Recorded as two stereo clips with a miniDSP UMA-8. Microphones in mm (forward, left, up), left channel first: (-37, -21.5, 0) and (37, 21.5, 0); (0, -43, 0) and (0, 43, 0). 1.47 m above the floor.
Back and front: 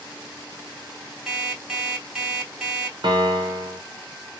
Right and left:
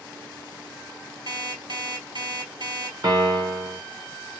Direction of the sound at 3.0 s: 55° left.